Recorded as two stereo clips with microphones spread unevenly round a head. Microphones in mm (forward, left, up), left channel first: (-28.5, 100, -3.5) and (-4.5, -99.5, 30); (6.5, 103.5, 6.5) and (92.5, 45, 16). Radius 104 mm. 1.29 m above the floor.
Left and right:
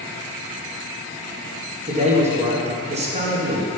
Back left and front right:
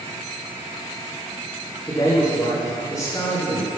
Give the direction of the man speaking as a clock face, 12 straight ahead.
5 o'clock.